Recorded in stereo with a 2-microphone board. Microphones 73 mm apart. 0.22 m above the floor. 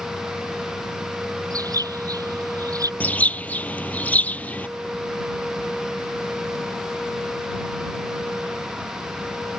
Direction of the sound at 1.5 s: 55° right (ahead or behind).